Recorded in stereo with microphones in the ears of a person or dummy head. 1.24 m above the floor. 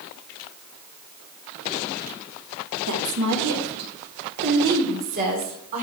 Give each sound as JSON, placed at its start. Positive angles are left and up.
{"t": 2.9, "sound": "a woman speaking", "side_deg": -75, "distance_m": 3.0}